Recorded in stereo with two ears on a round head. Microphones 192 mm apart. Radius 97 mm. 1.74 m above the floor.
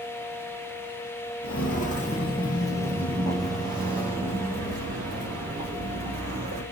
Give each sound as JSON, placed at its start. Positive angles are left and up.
{"t": 1.4, "sound": "footsteps", "side_deg": 45, "distance_m": 2.5}